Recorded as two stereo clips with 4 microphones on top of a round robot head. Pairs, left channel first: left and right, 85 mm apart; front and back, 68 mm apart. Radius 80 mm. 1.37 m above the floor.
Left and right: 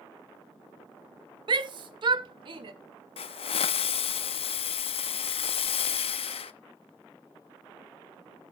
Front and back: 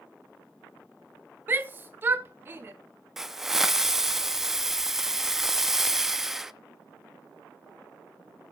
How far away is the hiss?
About 0.8 m.